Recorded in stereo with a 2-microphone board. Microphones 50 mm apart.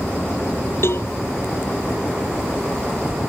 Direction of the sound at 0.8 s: 55° left (ahead or behind).